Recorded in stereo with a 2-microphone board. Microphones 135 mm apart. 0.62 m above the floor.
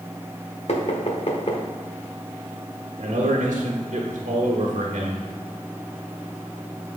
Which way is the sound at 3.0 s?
70° right (ahead or behind).